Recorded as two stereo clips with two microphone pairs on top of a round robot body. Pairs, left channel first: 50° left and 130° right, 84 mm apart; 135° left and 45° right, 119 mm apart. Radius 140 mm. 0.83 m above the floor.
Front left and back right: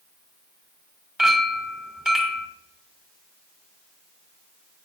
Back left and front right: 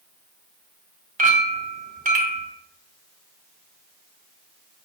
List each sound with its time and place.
1.2 s a clink: 45° right, 1.9 m